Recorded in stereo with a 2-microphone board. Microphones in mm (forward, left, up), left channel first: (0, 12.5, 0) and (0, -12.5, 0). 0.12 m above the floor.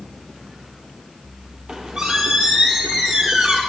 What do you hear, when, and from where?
1.7 s a squeak: 25° right (ahead or behind), 2.5 m